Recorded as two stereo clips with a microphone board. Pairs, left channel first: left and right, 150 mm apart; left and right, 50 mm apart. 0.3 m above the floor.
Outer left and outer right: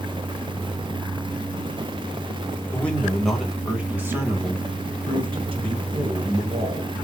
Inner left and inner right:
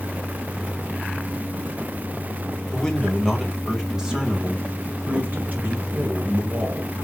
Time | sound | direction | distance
2.7 | a man speaking | 10° left (ahead or behind) | 1.7 m